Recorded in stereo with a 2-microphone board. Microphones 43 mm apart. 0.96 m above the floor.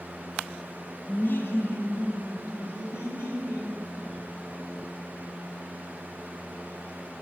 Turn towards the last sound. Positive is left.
turn(degrees=80)